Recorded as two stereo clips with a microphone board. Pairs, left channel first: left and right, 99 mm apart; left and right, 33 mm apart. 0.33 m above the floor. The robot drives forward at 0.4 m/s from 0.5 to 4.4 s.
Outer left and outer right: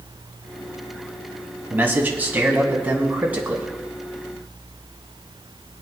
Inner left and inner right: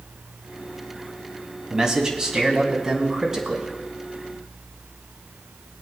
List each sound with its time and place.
1.7 s a man speaking: 20° right (ahead or behind), 2.5 m; by 3.7 s 15° right (ahead or behind), 3 m